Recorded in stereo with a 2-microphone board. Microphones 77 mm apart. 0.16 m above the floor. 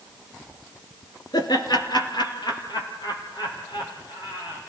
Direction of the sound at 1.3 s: 65° left (ahead or behind).